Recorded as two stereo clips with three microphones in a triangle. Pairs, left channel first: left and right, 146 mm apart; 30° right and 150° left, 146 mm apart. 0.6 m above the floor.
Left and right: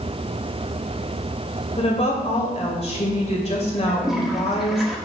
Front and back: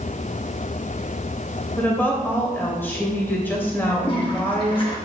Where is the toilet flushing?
5° right, 1.4 m.